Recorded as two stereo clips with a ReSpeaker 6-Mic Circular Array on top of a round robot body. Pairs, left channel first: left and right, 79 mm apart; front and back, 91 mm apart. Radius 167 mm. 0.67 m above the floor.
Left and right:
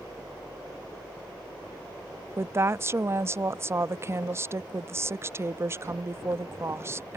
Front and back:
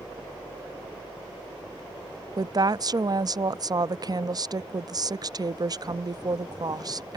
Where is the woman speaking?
145° right.